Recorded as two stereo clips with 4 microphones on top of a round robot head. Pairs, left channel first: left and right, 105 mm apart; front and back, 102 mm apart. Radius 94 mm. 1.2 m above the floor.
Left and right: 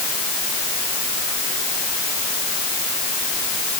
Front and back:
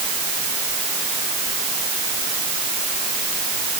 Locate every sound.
Only background noise.